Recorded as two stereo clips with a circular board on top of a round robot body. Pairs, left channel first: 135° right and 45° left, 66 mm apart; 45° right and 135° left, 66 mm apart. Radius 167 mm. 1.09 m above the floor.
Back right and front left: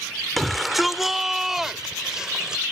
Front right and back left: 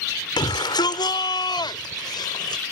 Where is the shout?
45° right; by 2.6 s 35° right.